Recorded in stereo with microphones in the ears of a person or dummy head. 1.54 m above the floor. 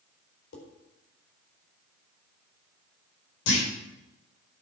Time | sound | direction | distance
0.5 | dishes clattering | 70° left (ahead or behind) | 4 m
3.5 | a clunk | 70° left (ahead or behind) | 5 m